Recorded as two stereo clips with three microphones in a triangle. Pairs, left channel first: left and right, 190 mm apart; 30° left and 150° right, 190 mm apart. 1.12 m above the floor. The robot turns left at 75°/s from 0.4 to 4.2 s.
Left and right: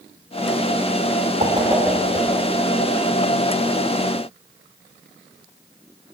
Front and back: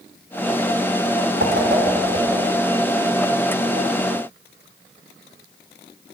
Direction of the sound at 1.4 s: 140° right.